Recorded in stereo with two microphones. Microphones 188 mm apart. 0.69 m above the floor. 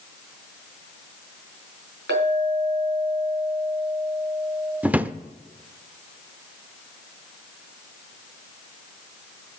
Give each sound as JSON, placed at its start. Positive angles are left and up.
{"t": 2.1, "sound": "a clink", "side_deg": -90, "distance_m": 4.0}
{"t": 4.8, "sound": "a drawer", "side_deg": -10, "distance_m": 0.5}